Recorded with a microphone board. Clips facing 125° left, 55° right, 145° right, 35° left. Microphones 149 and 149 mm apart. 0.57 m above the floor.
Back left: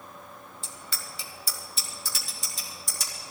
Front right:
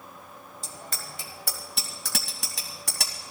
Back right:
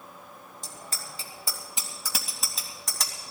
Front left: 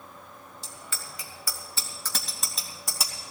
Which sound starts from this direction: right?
A bicycle bell, at 0.6 s.